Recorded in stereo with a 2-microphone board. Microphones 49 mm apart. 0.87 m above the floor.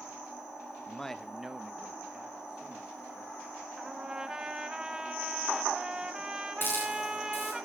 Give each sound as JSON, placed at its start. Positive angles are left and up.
{"t": 0.9, "sound": "a man speaking", "side_deg": 15, "distance_m": 0.7}
{"t": 3.8, "sound": "a trumpet", "side_deg": -15, "distance_m": 1.4}
{"t": 6.6, "sound": "a hiss", "side_deg": 45, "distance_m": 6.5}